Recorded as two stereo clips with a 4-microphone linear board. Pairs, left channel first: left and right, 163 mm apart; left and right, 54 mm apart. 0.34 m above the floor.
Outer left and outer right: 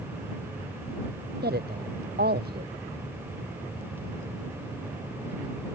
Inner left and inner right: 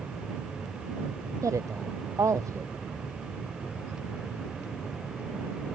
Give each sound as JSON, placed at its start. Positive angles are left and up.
{"t": 1.4, "sound": "a woman speaking", "side_deg": -80}